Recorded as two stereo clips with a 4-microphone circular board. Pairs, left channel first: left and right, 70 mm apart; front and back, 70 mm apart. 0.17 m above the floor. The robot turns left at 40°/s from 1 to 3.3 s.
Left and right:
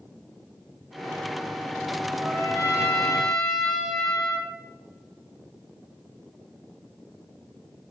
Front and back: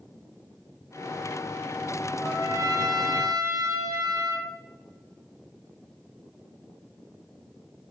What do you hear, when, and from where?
2.2 s a trumpet: 140° right, 4.5 m; by 4.5 s straight behind, 4.5 m